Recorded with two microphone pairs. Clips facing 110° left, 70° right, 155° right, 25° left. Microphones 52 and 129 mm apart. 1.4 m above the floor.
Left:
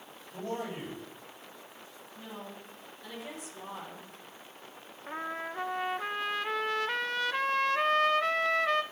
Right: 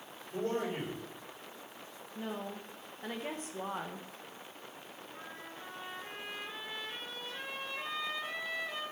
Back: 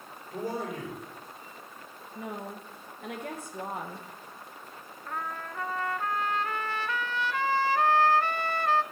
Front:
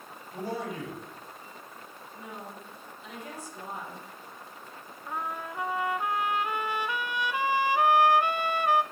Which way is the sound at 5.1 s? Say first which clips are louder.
Left 14 dB, front 2 dB; 105° left.